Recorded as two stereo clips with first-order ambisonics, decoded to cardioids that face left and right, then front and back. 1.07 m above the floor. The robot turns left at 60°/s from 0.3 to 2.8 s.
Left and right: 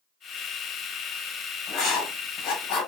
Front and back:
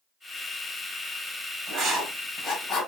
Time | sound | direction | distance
1.7 | writing | 130° left | 1.6 m